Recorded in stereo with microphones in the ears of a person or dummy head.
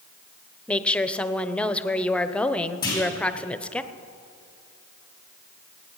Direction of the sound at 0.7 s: 10° left (ahead or behind).